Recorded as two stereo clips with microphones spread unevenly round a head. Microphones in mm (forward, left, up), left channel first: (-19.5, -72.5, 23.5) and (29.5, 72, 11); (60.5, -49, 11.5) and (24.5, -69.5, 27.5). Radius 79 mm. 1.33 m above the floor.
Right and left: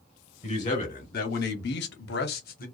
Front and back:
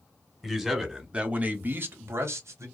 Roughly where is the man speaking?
Ahead right.